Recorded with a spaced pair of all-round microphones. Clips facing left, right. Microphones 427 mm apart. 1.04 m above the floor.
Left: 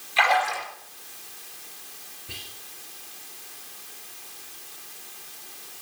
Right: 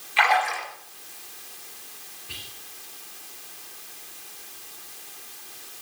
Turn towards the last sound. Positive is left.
turn(degrees=70)  # may be behind; listen again after turning